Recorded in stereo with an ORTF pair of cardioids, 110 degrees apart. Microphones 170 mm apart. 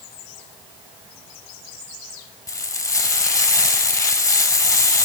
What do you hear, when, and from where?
2.5 s frying: 20° left, 4 m